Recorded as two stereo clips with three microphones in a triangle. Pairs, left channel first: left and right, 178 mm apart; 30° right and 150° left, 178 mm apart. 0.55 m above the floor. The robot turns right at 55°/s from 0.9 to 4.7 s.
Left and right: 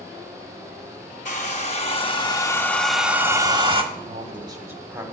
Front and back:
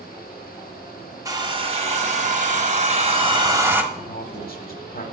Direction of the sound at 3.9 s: 55° right.